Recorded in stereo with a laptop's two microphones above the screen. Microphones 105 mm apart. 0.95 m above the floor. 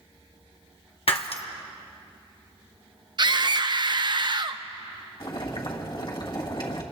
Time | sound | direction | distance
1.1 | breaking glass | 65° left (ahead or behind) | 0.9 m
3.2 | a scream | 45° right (ahead or behind) | 0.7 m
5.2 | boiling | 50° left (ahead or behind) | 1.9 m